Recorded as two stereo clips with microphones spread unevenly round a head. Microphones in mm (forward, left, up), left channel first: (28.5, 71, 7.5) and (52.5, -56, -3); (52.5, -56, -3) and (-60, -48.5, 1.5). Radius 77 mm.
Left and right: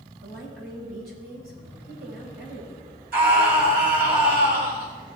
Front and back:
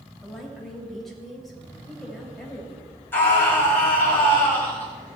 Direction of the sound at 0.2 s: 90° right.